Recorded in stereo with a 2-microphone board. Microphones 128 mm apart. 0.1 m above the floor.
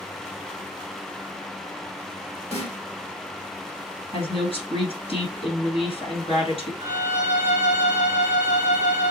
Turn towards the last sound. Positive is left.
turn(degrees=70)  # may be behind; listen again after turning